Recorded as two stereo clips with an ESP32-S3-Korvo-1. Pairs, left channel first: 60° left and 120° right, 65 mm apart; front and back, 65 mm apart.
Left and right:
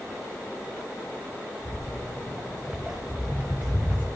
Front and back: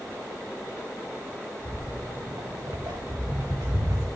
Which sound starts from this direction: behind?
Footsteps, at 1.6 s.